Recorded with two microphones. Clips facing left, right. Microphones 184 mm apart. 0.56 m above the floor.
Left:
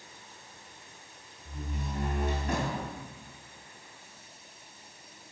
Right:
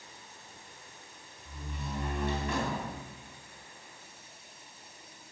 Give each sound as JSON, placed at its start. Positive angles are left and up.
{"t": 1.4, "sound": "a door slam", "side_deg": 45, "distance_m": 3.5}